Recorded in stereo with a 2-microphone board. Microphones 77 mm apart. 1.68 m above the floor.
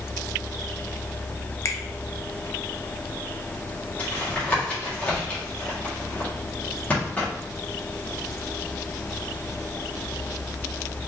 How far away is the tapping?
About 1.7 m.